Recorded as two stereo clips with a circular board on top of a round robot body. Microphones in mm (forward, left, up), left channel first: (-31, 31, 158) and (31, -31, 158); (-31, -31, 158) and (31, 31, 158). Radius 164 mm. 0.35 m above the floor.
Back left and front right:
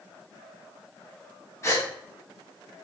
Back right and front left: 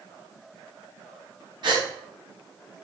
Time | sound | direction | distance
1.6 | a gasp | 75° left | 4 m